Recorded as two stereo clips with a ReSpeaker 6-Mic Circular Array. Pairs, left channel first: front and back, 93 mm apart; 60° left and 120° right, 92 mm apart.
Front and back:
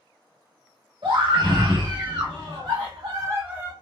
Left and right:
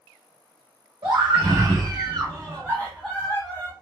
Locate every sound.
1.0 s a scream: 150° right, 2.0 m; by 3.7 s 90° left, 0.7 m